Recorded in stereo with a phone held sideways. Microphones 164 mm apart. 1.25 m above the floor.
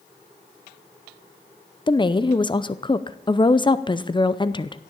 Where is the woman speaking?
30° left (ahead or behind), 0.6 m.